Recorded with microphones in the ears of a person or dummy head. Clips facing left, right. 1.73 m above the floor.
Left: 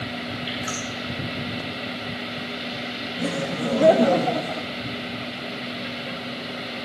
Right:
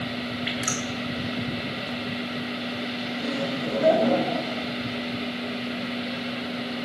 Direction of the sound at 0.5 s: 40° right (ahead or behind).